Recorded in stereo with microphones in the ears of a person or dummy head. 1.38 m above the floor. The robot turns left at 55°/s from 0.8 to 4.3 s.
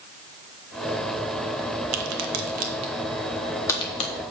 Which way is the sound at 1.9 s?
75° right (ahead or behind).